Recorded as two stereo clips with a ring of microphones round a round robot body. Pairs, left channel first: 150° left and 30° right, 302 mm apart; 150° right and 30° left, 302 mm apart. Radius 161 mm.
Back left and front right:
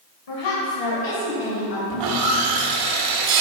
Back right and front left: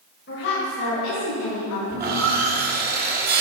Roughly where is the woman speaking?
Behind left.